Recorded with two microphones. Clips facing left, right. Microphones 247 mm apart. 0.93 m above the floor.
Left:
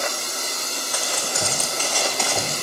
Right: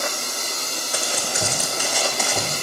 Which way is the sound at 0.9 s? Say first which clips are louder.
Right 1 dB; 25° right (ahead or behind).